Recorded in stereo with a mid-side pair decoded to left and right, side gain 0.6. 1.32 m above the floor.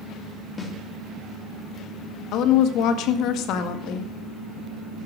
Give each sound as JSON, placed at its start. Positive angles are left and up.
{"t": 0.6, "sound": "a snare drum", "azimuth_deg": 25, "distance_m": 2.5}
{"t": 2.3, "sound": "a woman speaking", "azimuth_deg": 65, "distance_m": 1.7}